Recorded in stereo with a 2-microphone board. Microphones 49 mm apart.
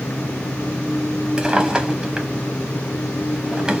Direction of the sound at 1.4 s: 15° right (ahead or behind).